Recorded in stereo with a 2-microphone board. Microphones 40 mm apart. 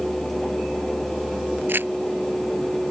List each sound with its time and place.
1.7 s crumpling: 55° right (ahead or behind)